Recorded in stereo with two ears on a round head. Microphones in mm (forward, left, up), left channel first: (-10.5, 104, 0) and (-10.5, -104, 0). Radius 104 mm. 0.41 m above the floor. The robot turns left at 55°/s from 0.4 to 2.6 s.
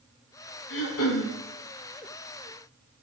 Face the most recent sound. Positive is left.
turn(degrees=20)